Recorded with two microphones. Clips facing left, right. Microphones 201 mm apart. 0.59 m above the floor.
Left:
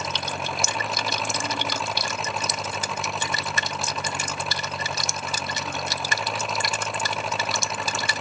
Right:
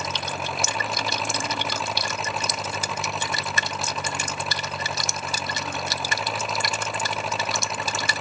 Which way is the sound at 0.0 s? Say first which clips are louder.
Even; centre (ahead or behind).